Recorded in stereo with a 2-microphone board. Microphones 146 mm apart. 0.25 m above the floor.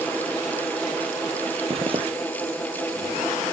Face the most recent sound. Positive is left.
turn(degrees=-40)  # may be behind; listen again after turning